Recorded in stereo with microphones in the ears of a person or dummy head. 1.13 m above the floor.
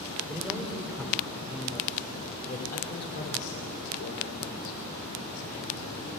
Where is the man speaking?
5° right (ahead or behind), 3.5 m; by 6.2 s 85° left, 5 m.